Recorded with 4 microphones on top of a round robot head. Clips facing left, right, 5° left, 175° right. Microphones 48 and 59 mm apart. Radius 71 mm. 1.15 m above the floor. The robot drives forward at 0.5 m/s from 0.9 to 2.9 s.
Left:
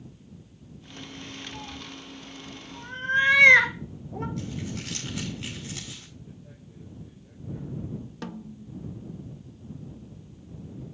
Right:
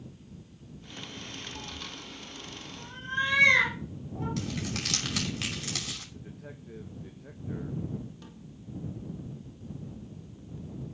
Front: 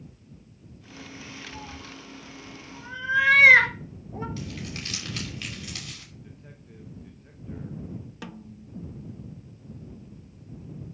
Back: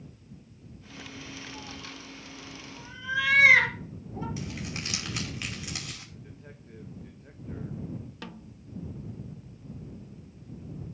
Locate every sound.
1.5 s a cat meowing: 45° left, 3.5 m; by 4.3 s 55° left, 3 m
4.4 s crumpling: 100° right, 5 m
6.1 s a man speaking: 95° right, 1.6 m
8.2 s a snare drum: 90° left, 0.7 m